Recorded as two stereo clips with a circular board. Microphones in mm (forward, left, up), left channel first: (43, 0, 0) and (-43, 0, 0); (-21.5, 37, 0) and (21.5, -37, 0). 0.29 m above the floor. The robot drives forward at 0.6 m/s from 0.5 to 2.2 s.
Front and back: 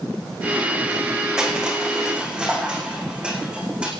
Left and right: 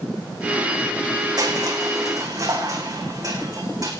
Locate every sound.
1.4 s crushing: 100° right, 6.5 m